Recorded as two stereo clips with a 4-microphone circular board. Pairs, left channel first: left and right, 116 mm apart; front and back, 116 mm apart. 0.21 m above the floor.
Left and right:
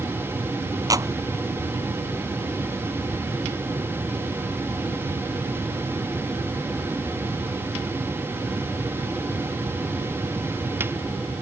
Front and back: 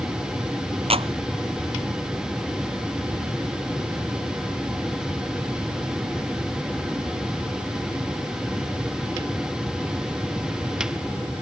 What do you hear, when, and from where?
0.9 s a clap: 150° right